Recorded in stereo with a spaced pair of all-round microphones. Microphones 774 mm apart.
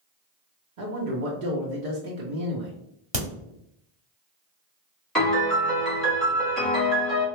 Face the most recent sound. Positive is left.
turn(degrees=0)  # may be behind; listen again after turning